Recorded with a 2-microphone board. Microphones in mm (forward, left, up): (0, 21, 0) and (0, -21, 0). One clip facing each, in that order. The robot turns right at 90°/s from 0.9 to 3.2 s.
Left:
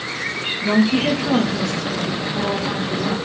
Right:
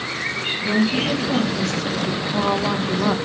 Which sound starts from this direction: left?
A woman speaking, at 0.6 s.